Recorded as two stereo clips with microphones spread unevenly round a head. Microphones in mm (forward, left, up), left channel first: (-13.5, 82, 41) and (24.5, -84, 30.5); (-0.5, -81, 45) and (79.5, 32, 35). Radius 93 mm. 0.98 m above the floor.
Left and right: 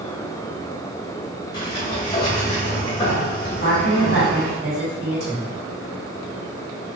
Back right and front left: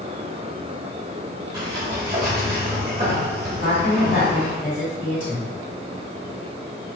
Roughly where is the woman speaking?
Right.